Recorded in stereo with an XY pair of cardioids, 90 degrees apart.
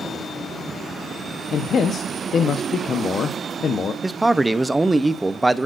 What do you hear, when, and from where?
1.5 s a man speaking: 55° left, 1.0 m
4.0 s a man speaking: 15° right, 0.7 m